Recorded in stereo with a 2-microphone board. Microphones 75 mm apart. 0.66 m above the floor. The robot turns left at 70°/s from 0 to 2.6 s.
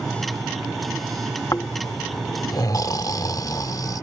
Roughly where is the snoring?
Behind left.